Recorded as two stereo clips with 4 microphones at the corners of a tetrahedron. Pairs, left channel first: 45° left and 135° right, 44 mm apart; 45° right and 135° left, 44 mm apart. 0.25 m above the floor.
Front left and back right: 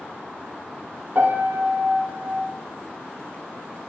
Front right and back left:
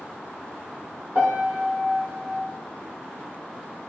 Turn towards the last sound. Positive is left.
turn(degrees=-170)